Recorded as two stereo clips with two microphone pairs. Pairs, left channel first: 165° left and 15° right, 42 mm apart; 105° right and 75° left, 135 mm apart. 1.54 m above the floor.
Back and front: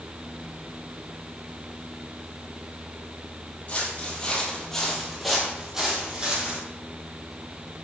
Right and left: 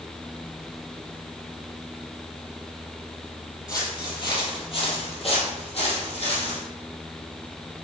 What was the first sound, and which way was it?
Footsteps, 155° right.